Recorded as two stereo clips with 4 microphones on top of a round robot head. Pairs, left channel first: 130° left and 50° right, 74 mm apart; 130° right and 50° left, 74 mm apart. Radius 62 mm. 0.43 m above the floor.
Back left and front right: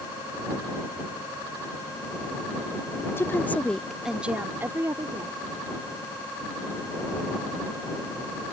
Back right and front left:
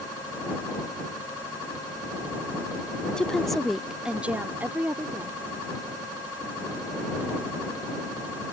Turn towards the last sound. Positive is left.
turn(degrees=-10)